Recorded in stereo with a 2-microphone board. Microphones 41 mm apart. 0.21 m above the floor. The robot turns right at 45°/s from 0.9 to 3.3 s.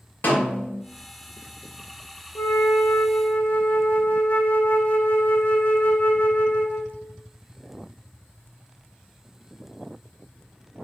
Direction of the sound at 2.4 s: 100° left.